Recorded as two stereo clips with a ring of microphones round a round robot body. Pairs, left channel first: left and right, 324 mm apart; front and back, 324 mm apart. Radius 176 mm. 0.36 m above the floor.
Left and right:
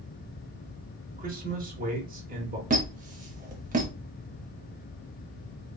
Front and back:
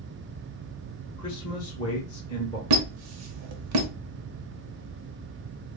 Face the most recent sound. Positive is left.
turn(degrees=-150)